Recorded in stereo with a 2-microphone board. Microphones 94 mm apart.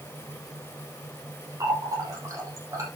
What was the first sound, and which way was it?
A running tap, 35° right (ahead or behind).